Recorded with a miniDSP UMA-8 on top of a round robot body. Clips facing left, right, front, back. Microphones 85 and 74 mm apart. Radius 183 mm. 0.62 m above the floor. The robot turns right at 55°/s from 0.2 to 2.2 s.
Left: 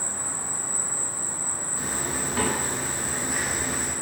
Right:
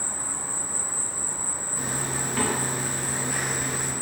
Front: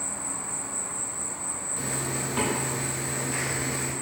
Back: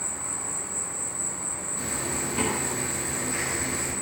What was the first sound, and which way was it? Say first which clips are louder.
An insect: even, even; 65° left.